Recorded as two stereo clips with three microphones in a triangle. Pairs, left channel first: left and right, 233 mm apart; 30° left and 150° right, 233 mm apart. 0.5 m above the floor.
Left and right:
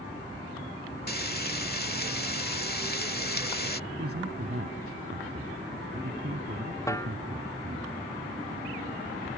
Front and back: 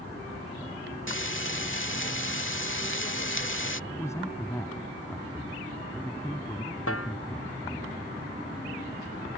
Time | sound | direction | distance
1.1 | frying | 50° left | ?
3.9 | a man speaking | 50° right | ?
6.9 | a snare drum | 15° left | ?